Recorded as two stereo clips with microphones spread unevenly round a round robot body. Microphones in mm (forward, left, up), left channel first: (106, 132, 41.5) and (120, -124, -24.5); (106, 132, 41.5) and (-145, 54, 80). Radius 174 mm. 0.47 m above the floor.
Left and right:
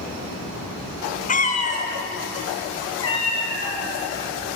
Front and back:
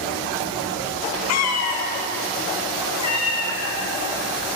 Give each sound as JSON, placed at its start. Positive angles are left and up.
{"t": 1.3, "sound": "a cat meowing", "azimuth_deg": 25, "distance_m": 0.5}